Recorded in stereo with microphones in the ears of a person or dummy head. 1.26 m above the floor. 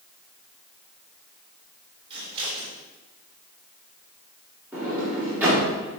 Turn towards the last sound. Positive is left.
turn(degrees=-10)  # may be behind; listen again after turning